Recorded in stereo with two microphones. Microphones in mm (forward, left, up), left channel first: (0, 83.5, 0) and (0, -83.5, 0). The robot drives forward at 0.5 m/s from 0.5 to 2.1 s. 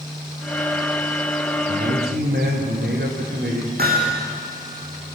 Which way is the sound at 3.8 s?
70° right (ahead or behind).